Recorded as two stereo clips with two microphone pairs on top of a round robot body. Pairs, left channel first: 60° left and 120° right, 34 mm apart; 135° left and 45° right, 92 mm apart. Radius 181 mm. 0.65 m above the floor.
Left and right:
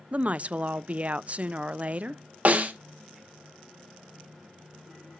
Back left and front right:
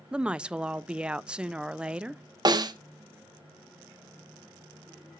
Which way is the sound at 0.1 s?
115° right.